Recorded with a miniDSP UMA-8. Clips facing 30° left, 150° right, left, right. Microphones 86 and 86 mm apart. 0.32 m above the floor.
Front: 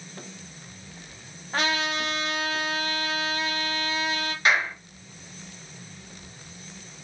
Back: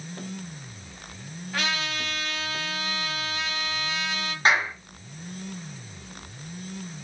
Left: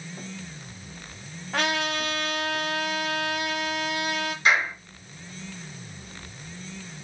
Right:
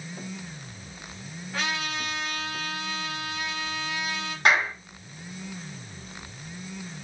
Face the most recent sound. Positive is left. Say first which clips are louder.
# back 1 dB, right 1 dB
turn(degrees=-100)